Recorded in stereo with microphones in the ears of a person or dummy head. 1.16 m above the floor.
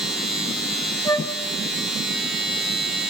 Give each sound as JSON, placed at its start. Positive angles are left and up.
{"t": 0.0, "sound": "a machine running", "side_deg": 0, "distance_m": 7.0}
{"t": 1.1, "sound": "a flute", "side_deg": 15, "distance_m": 1.2}